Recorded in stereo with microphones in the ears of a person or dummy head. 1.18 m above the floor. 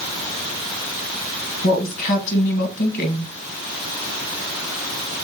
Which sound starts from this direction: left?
A woman speaking, at 1.6 s.